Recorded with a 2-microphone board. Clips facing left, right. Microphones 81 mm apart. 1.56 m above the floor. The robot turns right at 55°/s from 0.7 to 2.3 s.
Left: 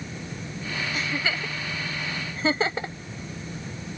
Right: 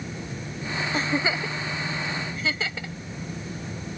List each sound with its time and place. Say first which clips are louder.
0.9 s a giggle: right 5 dB; 35° right (ahead or behind); by 3.0 s 35° left (ahead or behind)